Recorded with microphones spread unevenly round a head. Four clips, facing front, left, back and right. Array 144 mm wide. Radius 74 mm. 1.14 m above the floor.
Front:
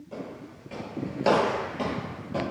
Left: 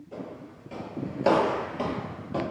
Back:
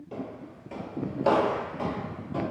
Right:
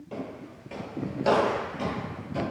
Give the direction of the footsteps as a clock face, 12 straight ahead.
4 o'clock.